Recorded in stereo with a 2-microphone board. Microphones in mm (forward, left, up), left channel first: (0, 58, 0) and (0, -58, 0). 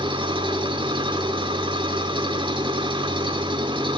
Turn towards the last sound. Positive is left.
turn(degrees=-45)  # may be behind; listen again after turning